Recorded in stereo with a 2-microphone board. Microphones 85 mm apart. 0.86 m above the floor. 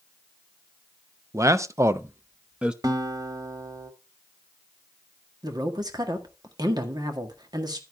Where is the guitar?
50° right (ahead or behind), 1.1 m.